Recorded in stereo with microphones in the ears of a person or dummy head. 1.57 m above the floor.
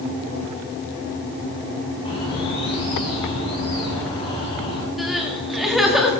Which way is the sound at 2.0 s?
35° left (ahead or behind).